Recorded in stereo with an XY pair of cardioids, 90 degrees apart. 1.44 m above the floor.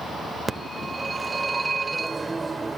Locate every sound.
0.5 s a phone ringing: 25° right, 1.1 m